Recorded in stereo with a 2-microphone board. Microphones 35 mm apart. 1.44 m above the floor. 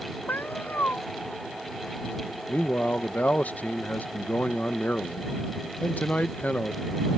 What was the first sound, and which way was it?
A cat meowing, 75° left (ahead or behind).